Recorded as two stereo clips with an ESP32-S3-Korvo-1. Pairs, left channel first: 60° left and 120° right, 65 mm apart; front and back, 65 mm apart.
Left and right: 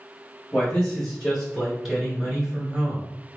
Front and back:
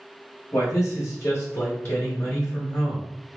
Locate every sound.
0.5 s a man speaking: 5° right, 2.0 m; by 3.1 s 55° right, 2.5 m